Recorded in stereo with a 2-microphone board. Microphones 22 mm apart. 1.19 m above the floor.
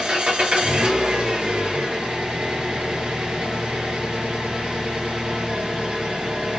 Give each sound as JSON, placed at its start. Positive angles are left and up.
{"t": 0.0, "sound": "an engine running", "side_deg": -60, "distance_m": 0.9}